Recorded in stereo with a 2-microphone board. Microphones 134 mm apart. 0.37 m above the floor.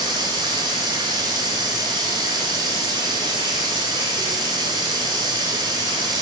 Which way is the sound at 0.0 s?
35° right (ahead or behind).